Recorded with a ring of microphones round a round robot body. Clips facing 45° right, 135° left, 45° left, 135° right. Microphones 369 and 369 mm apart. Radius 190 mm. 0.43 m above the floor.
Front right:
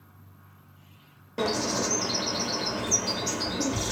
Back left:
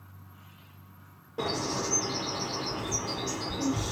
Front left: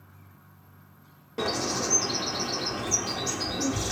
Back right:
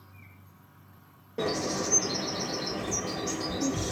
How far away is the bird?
About 1.2 m.